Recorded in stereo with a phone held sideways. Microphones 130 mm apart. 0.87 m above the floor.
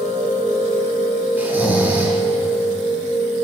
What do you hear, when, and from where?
0.0 s a machine running: 75° right (ahead or behind), 2.5 m
1.4 s snoring: 15° right (ahead or behind), 1.4 m